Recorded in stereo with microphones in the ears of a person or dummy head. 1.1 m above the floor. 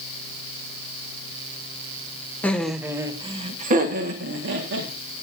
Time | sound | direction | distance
2.4 | laughter | 10° left (ahead or behind) | 1.2 m